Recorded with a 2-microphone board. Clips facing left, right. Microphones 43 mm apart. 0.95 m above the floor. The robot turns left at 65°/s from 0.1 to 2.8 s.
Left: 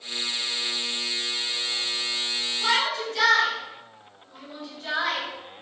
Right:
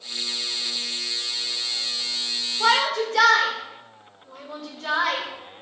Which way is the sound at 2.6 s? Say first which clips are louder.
Right 5 dB; 80° right.